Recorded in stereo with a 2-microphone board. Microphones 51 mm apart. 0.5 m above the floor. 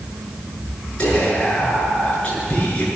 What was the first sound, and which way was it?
Whispering, 20° left (ahead or behind).